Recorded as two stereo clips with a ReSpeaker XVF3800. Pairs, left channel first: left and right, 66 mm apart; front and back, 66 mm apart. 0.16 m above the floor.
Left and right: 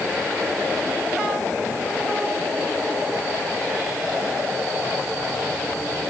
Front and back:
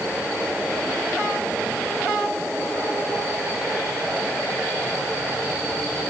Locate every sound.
Only background noise.